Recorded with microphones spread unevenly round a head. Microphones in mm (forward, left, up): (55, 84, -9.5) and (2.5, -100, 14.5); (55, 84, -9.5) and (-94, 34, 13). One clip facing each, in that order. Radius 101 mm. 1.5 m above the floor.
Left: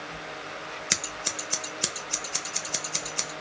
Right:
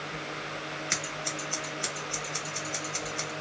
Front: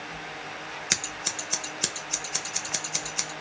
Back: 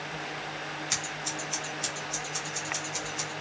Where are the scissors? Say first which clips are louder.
Right 1 dB, even; 35° left, 0.9 m.